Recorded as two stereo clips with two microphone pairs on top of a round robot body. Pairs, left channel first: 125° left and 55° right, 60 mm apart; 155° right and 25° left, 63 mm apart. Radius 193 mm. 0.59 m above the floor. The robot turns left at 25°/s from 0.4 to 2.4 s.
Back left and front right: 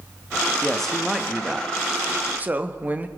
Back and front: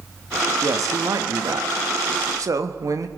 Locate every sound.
0.6 s a man speaking: 45° left, 1.1 m; by 3.1 s straight ahead, 1.1 m